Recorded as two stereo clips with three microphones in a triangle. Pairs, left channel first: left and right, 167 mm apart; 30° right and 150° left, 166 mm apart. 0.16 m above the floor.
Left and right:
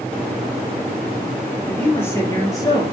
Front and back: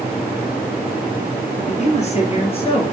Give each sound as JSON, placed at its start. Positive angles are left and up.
{"t": 1.7, "sound": "a man speaking", "azimuth_deg": 10, "distance_m": 4.0}